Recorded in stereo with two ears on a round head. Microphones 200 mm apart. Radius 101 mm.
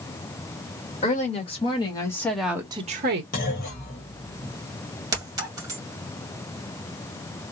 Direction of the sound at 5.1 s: 15° right (ahead or behind).